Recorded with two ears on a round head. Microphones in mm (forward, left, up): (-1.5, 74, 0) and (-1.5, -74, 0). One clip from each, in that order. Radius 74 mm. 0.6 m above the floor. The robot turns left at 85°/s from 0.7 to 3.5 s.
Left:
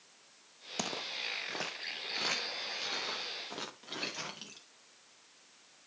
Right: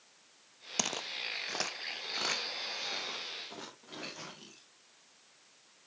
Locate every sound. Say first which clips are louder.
0.8 s footsteps: right 2 dB; 30° right (ahead or behind), 0.7 m; by 4.7 s 75° left (ahead or behind), 4.5 m